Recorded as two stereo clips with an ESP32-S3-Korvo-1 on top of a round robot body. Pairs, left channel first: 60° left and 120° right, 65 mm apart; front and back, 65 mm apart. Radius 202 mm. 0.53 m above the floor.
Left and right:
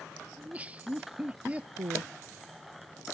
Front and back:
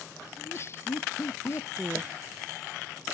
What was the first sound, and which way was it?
Laughter, 50° right.